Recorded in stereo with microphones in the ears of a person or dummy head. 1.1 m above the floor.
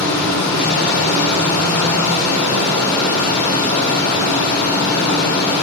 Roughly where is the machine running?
Left.